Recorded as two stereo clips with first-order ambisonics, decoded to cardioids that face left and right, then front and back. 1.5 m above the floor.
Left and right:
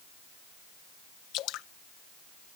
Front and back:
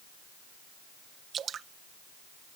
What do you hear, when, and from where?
1.3 s dripping: 120° left